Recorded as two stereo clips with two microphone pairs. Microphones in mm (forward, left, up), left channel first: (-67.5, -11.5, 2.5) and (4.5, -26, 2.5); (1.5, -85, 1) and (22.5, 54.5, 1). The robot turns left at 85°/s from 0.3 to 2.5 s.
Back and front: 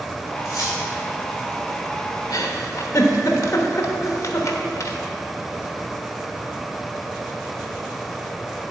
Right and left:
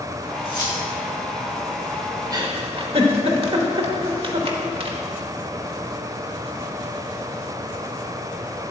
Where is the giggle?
145° left, 0.9 m; by 5.0 s 130° left, 0.9 m.